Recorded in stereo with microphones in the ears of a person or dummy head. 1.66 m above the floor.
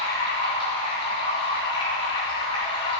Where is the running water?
30° left (ahead or behind), 6 m.